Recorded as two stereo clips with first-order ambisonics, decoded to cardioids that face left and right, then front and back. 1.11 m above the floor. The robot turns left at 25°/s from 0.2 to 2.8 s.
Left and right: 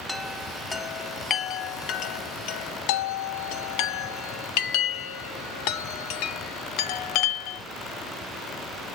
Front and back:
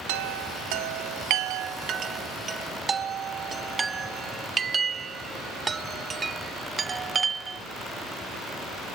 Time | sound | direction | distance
0.1 | a chime | 175° left | 1.1 m